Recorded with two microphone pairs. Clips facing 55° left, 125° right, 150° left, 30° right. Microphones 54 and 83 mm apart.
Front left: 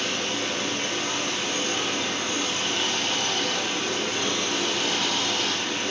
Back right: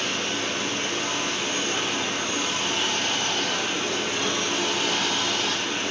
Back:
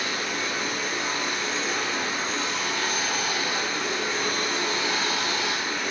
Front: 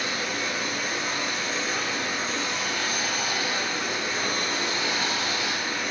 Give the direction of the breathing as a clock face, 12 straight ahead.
No breathing in this recording.